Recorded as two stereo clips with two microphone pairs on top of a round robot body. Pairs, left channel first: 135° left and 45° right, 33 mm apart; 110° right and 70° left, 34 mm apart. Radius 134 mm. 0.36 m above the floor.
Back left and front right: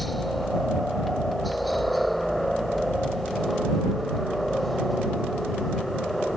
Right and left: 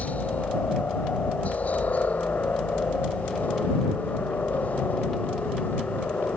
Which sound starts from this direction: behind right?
A helicopter, at 0.0 s.